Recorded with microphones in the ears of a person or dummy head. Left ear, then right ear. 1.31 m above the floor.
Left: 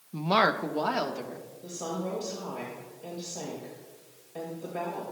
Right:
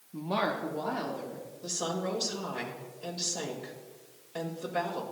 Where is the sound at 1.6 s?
50° right (ahead or behind), 2.0 m.